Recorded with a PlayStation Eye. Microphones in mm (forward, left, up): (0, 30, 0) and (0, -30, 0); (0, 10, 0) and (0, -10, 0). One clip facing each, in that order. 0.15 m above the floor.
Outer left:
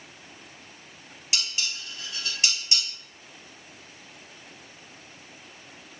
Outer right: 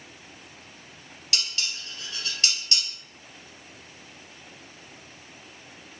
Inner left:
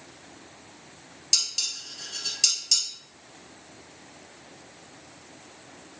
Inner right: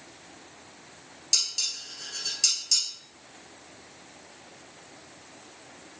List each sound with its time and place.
1.3 s dishes clattering: 20° left (ahead or behind), 2 m